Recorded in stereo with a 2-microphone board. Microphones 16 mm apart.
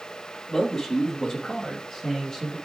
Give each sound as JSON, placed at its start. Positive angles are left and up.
{"t": 0.5, "sound": "a man speaking", "side_deg": 35, "distance_m": 3.5}